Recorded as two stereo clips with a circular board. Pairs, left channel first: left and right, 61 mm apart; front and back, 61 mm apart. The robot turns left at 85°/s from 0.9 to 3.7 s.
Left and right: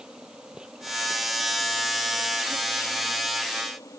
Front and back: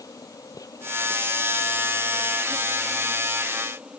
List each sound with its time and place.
0.0 s an insect: 15° right; by 4.0 s 110° left